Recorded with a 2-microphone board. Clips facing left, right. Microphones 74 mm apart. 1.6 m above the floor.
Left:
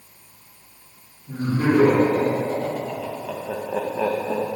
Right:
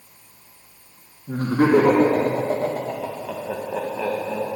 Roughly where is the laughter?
Right.